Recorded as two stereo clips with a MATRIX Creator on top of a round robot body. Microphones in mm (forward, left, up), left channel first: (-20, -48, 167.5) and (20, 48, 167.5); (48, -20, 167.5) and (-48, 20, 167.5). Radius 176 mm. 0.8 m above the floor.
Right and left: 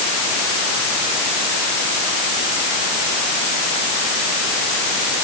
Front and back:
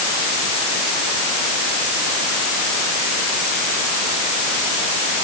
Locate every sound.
Only background noise.